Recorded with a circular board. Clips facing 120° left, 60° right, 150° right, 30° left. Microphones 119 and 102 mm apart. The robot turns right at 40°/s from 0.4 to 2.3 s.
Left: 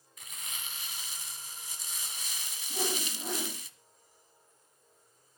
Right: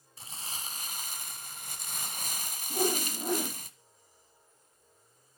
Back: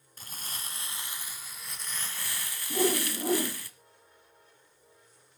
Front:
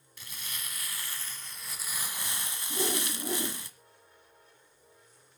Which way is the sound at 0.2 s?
110° right.